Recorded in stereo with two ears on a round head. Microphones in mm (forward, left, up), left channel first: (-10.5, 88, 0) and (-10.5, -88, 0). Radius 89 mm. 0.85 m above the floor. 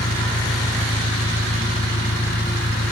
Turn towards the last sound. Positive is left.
turn(degrees=50)  # may be behind; listen again after turning